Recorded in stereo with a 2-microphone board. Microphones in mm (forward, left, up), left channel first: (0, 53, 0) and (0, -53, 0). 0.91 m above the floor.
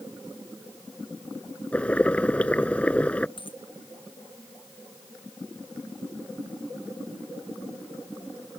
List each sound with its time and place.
1.7 s boiling: 10° left (ahead or behind)
3.4 s a dropped coin: 50° left (ahead or behind)